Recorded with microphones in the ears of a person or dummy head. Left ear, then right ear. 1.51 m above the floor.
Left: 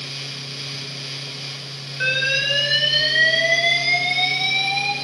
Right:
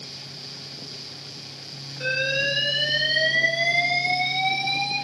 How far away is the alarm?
About 4.5 m.